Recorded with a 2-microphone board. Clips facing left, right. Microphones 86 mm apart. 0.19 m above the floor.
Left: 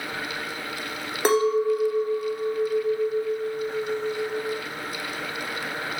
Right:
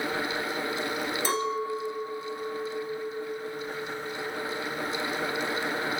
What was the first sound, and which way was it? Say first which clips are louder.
A clink: left 12 dB; 70° left (ahead or behind).